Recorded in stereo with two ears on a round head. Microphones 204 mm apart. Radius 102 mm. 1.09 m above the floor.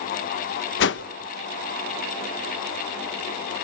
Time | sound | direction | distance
0.8 | a whoosh | 55° left (ahead or behind) | 1.0 m